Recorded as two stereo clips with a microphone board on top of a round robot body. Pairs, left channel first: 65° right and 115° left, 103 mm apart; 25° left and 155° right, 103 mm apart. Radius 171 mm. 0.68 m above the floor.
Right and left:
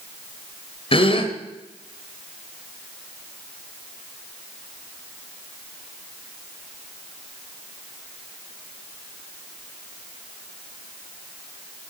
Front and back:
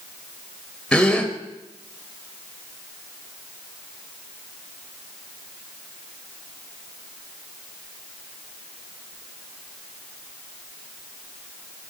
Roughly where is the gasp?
Ahead right.